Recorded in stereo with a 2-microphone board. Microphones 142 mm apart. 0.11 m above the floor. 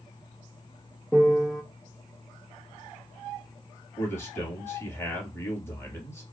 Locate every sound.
1.1 s a piano: centre (ahead or behind), 1.1 m
4.0 s a man speaking: 15° left (ahead or behind), 2.5 m